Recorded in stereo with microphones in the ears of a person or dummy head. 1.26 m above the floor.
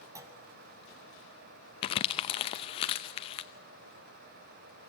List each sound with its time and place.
0.1 s a clunk: 10° right (ahead or behind), 1.0 m
1.8 s crumpling: 25° left (ahead or behind), 0.7 m